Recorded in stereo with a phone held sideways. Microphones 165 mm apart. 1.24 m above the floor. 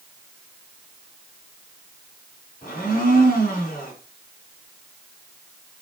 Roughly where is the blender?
Left.